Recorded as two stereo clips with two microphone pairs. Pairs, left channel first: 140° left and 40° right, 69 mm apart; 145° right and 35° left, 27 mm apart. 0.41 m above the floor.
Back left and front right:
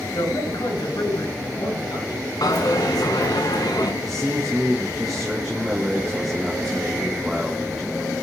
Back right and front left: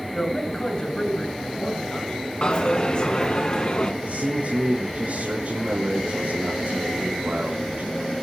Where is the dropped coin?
160° left, 2.5 m.